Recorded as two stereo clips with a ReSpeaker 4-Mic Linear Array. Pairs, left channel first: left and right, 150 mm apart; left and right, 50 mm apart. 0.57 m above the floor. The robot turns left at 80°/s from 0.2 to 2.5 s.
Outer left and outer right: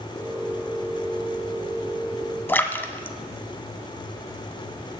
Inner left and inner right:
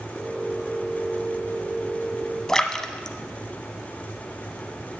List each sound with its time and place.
2.5 s a splash: 15° left (ahead or behind), 0.7 m